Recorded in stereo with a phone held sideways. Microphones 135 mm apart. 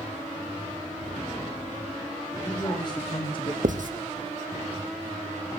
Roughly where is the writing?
Right.